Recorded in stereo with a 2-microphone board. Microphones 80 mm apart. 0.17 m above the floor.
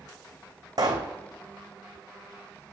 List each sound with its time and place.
0.8 s a pop: 50° right (ahead or behind), 2.5 m